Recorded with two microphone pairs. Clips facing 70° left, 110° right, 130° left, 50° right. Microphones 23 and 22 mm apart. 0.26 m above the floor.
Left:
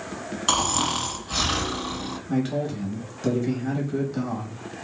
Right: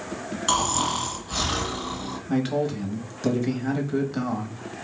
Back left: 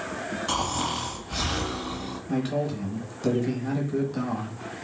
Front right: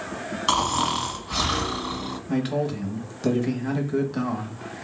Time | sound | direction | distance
0.5 | snoring | straight ahead | 1.7 m
2.3 | a man speaking | 85° right | 0.9 m